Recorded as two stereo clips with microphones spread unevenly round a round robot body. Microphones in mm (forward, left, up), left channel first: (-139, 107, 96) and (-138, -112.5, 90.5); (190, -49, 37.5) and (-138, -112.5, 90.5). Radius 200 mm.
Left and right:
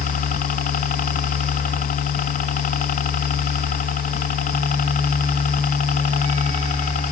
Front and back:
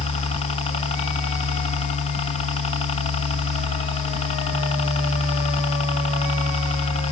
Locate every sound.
0.0 s a helicopter: 60° left